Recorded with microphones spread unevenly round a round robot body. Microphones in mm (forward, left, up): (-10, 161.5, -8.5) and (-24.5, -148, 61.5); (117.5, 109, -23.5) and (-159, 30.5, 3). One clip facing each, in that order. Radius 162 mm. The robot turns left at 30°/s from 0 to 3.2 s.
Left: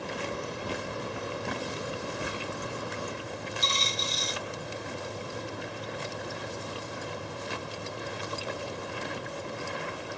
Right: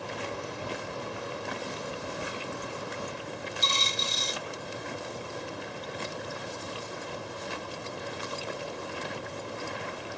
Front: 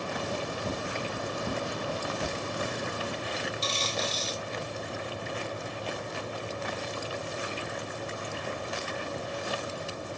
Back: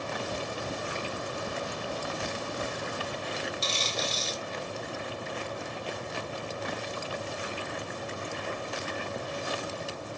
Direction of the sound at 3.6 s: 145° right.